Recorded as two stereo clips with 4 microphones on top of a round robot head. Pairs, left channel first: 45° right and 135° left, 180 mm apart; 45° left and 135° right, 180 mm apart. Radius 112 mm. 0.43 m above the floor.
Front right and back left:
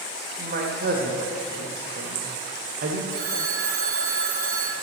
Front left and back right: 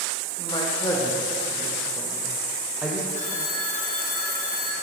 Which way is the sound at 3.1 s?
100° left.